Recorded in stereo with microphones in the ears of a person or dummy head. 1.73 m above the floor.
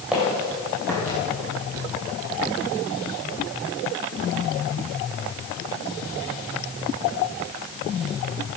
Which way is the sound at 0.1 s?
15° right (ahead or behind).